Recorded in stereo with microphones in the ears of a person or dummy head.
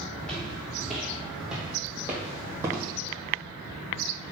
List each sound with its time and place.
0.2 s footsteps: 5° left (ahead or behind), 3 m; by 2.9 s 20° right (ahead or behind), 2.5 m